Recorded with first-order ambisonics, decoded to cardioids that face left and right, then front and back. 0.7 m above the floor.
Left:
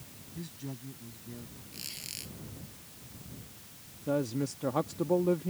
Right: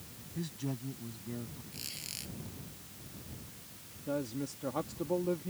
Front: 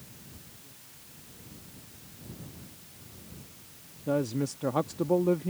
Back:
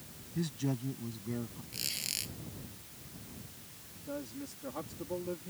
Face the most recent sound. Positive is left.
turn(degrees=25)